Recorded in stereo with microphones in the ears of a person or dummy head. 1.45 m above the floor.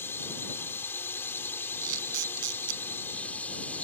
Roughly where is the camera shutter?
Right.